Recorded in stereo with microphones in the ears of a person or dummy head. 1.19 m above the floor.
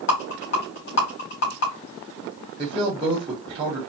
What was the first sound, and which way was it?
A rattle, 60° left (ahead or behind).